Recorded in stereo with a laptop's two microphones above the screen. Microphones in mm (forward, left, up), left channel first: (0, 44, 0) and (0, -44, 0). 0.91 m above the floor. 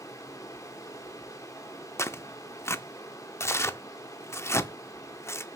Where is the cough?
I don't hear a cough.